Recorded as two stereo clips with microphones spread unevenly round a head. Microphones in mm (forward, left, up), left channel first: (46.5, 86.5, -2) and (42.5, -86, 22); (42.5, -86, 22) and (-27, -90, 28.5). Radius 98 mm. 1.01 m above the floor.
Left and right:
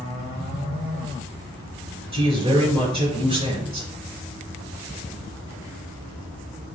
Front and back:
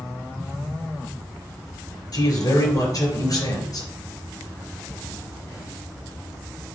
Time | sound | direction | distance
2.1 | a man speaking | 30° right | 4.5 m